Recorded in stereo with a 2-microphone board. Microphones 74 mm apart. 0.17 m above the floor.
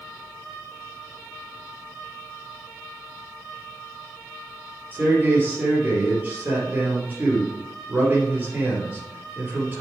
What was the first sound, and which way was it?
A man speaking, 25° right (ahead or behind).